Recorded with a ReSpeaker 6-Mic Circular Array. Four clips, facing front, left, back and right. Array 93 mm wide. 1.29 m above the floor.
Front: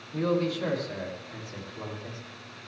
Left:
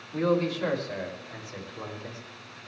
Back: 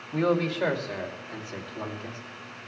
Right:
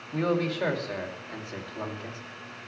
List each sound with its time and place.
0.1 s a man speaking: 150° right, 2.5 m; by 2.2 s 120° right, 3 m